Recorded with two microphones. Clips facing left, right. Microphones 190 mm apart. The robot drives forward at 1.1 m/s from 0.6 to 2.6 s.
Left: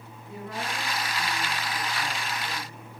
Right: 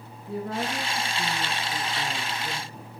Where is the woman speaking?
40° right (ahead or behind), 2.0 m; by 2.9 s 35° right (ahead or behind), 2 m.